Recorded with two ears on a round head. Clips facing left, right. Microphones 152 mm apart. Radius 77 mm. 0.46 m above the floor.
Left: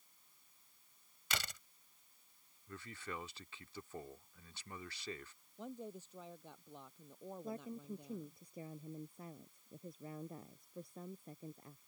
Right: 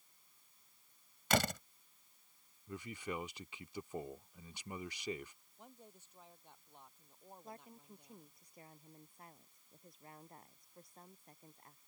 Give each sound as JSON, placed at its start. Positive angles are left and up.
{"t": 1.3, "sound": "a door slam", "side_deg": -40}
{"t": 2.7, "sound": "a man speaking", "side_deg": -15}
{"t": 5.6, "sound": "a woman speaking", "side_deg": 65}
{"t": 7.4, "sound": "a woman speaking", "side_deg": 70}